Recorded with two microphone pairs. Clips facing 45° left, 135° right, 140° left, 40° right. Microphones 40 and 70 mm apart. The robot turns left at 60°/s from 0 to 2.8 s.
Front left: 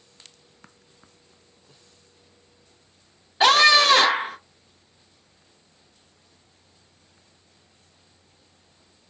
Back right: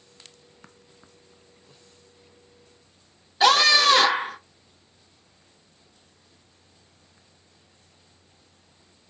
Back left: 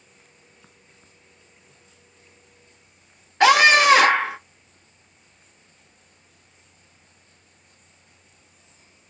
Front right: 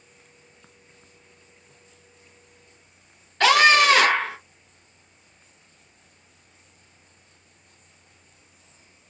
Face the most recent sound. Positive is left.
turn(degrees=80)